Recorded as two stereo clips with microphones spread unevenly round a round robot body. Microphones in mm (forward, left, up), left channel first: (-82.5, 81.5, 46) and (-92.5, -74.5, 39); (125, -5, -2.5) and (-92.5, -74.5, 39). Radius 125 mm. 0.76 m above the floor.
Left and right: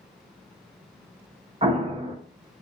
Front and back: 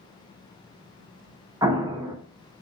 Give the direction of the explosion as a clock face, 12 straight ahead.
3 o'clock.